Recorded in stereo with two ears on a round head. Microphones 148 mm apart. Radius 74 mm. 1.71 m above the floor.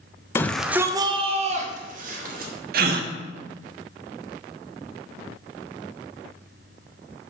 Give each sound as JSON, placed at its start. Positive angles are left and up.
{"t": 0.3, "sound": "a shout", "side_deg": 15, "distance_m": 0.6}
{"t": 2.7, "sound": "a gasp", "side_deg": -60, "distance_m": 0.7}